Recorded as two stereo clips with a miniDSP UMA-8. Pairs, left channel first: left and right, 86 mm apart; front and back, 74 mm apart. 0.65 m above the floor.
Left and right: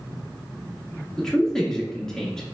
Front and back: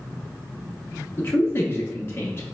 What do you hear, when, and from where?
1.2 s a man speaking: 10° left, 0.6 m